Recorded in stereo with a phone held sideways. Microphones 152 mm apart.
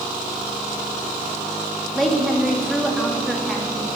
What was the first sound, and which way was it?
A woman speaking, centre (ahead or behind).